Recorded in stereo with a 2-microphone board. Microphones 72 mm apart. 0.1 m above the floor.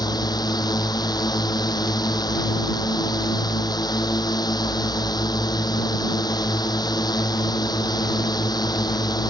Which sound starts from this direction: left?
A drone, at 0.0 s.